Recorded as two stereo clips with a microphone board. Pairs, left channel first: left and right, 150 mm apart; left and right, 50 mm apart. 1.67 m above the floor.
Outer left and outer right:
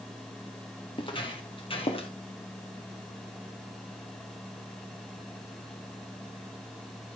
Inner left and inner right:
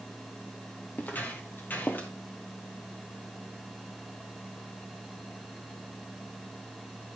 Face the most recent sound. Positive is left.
turn(degrees=35)  # may be behind; listen again after turning